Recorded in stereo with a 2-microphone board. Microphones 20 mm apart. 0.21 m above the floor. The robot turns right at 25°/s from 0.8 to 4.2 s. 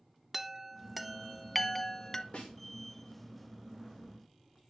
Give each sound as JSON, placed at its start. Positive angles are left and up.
{"t": 0.3, "sound": "a chime", "side_deg": -15, "distance_m": 0.7}
{"t": 2.3, "sound": "a snare drum", "side_deg": 55, "distance_m": 5.5}